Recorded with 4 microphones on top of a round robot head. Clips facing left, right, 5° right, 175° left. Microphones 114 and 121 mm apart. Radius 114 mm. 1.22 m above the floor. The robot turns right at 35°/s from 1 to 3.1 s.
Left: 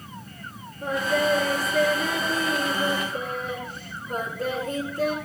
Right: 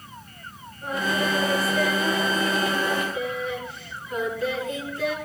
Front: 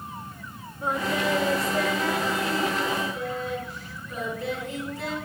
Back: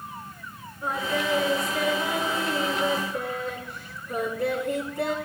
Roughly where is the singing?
Ahead left.